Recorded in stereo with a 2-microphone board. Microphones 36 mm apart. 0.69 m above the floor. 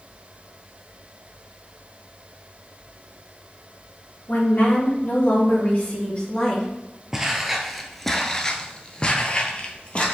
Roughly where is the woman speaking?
Left.